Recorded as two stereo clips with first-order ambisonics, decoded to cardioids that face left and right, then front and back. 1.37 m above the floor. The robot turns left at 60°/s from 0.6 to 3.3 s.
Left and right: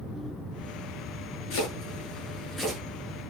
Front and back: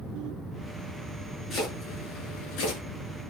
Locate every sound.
1.5 s chopping: 75° left, 10 m; by 2.8 s 5° right, 10 m